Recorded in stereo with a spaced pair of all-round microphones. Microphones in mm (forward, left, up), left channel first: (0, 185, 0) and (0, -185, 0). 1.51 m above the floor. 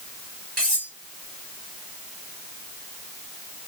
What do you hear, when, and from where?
0.6 s cutlery clinking: 80° right, 4.5 m